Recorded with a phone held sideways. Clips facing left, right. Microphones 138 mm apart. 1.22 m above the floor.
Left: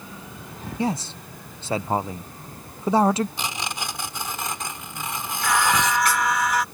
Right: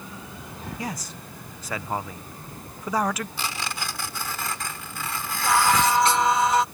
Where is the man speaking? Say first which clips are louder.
Left 10 dB; 25° left (ahead or behind).